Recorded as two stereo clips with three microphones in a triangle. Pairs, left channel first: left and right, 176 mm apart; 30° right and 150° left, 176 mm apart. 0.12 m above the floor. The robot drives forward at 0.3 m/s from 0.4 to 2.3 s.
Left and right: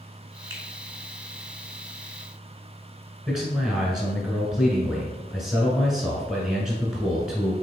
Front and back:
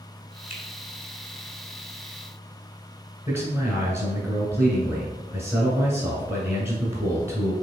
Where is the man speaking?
175° right, 1.1 m.